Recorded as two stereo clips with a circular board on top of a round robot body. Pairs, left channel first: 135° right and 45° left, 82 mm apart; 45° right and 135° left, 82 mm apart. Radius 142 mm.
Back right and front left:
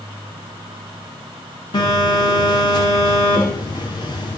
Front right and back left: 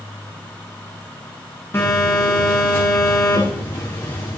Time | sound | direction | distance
1.7 | a phone buzzing | 105° right | 9 m